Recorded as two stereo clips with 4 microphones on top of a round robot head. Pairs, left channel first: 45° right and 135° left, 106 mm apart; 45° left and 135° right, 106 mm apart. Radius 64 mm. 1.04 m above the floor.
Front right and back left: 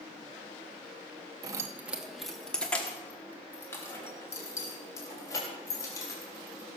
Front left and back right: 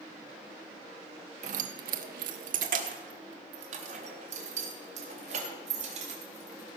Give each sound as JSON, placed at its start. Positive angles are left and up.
{"t": 1.4, "sound": "keys jangling", "azimuth_deg": -165, "distance_m": 0.6}